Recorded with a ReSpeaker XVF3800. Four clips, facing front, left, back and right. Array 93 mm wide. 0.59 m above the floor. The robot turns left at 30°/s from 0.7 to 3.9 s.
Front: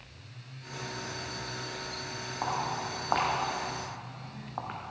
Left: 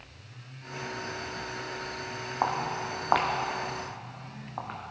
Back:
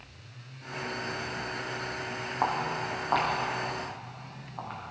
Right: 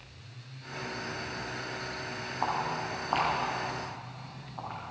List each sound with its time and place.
2.4 s footsteps: 120° left, 3 m; by 4.8 s 40° left, 3 m